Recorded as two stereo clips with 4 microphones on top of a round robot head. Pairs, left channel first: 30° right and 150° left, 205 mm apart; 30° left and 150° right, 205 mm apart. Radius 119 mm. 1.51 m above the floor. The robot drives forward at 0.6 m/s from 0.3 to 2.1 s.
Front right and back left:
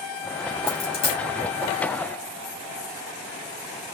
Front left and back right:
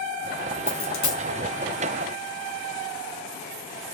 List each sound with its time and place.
0.7 s a dropped coin: 10° left, 2.5 m; by 1.2 s 15° left, 2 m